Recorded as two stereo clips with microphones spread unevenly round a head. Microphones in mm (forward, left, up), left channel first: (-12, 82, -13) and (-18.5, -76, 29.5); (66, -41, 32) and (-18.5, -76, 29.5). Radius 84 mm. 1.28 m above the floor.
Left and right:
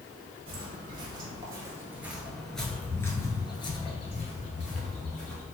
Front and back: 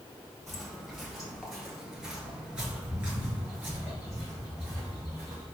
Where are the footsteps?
65° right, 1.9 m; by 5.5 s 130° left, 2.0 m.